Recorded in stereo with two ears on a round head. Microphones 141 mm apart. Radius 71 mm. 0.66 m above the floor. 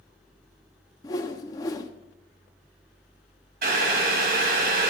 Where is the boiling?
60° right (ahead or behind), 2.5 m.